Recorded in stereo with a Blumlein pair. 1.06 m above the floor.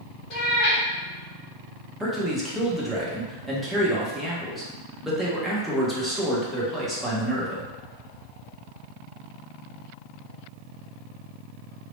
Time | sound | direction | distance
0.3 | a cat meowing | 40° left | 1.1 m
2.0 | a man speaking | straight ahead | 0.9 m